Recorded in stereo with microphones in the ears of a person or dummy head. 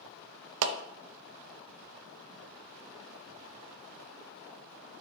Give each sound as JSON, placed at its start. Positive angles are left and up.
{"t": 0.6, "sound": "a clap", "side_deg": -75, "distance_m": 0.8}